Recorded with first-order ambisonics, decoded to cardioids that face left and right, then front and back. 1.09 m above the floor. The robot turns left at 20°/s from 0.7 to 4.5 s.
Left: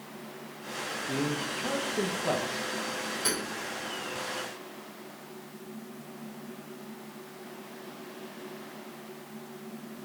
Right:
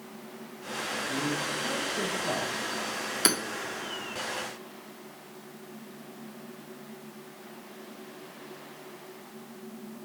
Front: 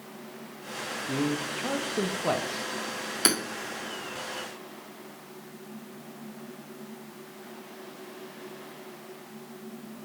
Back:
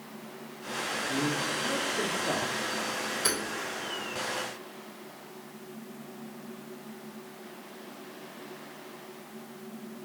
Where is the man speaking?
35° left, 1.3 m; by 2.7 s 5° left, 1.3 m.